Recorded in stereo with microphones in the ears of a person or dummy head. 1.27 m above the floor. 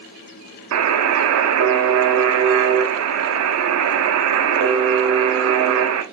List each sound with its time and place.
0.7 s a buzzer: 80° right, 0.7 m